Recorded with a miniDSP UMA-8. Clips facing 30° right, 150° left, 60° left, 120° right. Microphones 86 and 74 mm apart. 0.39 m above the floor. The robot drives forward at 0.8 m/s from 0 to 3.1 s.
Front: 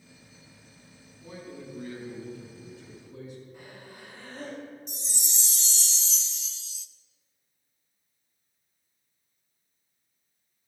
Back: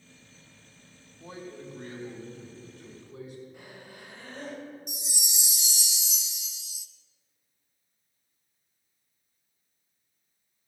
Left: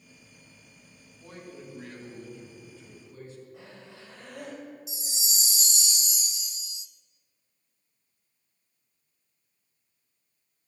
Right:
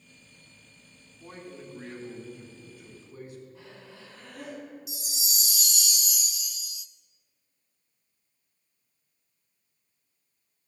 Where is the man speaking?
160° left, 2.5 m; by 3.4 s 165° left, 4 m.